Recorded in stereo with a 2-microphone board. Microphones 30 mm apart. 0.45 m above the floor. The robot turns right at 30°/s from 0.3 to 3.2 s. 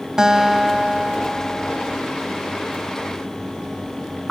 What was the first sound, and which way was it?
A guitar, 20° right.